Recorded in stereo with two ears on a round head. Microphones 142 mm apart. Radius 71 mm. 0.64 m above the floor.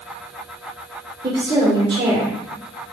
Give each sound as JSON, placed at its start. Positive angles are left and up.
{"t": 1.2, "sound": "a woman speaking", "side_deg": -30, "distance_m": 2.0}